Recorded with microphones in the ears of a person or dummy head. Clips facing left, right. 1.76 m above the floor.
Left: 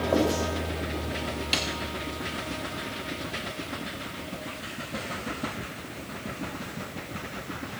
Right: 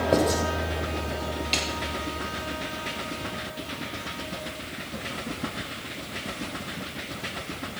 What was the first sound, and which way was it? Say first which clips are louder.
Writing: right 1 dB; 35° right (ahead or behind).